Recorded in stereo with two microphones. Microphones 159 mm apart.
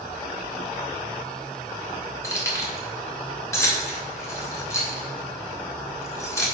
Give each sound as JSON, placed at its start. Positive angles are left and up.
{"t": 2.2, "sound": "keys jangling", "side_deg": 20, "distance_m": 1.9}